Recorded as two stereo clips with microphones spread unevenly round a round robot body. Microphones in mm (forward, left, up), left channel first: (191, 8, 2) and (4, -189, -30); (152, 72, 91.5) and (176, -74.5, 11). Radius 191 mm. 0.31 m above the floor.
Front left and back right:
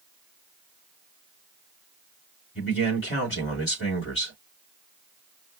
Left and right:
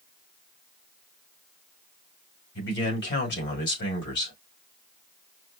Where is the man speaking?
105° left, 2.5 m.